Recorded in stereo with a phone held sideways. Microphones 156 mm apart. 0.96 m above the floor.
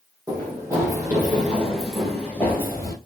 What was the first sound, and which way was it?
Running footsteps, 25° right (ahead or behind).